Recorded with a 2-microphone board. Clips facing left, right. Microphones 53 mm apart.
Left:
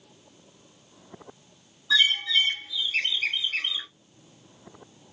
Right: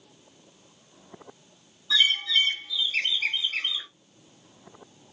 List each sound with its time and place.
1.9 s a bird: 30° left (ahead or behind), 1.8 m